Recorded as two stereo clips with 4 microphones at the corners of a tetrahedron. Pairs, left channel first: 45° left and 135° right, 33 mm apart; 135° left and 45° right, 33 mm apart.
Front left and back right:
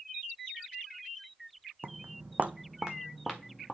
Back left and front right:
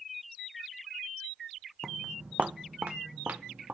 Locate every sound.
1.8 s footsteps: 130° right, 0.7 m; by 3.8 s 40° right, 1.5 m